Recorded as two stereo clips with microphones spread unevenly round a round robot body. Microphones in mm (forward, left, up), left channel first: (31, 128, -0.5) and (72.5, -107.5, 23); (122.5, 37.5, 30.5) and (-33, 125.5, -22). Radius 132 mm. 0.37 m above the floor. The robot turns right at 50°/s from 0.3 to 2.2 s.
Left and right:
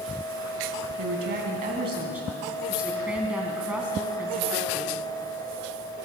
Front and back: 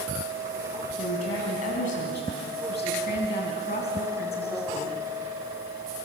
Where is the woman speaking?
55° right, 3.5 m; by 5.0 s 5° left, 3.5 m.